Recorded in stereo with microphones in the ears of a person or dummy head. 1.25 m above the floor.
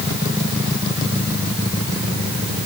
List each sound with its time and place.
Only background noise.